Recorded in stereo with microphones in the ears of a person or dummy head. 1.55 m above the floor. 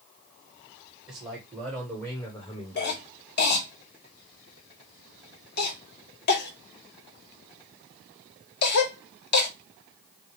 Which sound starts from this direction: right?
A man speaking, at 1.1 s.